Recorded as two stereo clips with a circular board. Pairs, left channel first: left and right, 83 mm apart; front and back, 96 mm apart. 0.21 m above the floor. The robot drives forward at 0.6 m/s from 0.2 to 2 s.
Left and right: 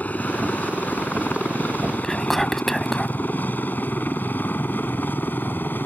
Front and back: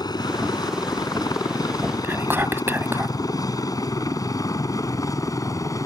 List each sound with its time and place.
0.0 s a helicopter: 25° left; by 5.9 s 35° left
2.0 s whispering: 170° left